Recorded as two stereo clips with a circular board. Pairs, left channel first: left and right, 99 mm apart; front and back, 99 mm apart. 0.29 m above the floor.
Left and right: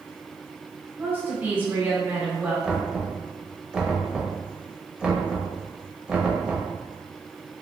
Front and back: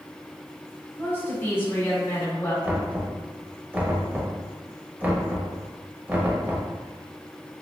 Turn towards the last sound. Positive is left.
turn(degrees=-150)